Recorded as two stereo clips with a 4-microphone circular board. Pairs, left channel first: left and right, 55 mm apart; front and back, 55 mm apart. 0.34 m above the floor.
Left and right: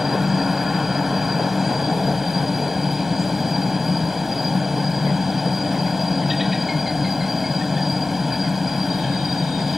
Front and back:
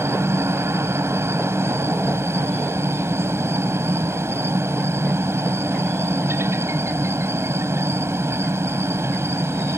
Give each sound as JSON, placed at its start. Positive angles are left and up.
{"t": 0.0, "sound": "a helicopter", "azimuth_deg": -175}